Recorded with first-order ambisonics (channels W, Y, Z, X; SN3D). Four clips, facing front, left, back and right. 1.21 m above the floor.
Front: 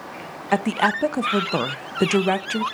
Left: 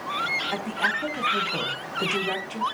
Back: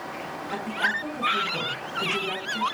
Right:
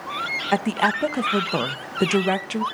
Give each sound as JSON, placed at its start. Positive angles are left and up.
{"t": 0.5, "sound": "a woman speaking", "azimuth_deg": -35, "distance_m": 0.7}